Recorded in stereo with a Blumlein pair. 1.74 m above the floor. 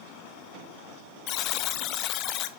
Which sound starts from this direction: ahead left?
A buzzer, at 1.3 s.